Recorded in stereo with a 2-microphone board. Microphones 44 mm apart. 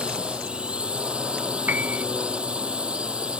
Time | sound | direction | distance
0.0 | a drone | 25° right (ahead or behind) | ?
1.7 | a piano | 40° right (ahead or behind) | ?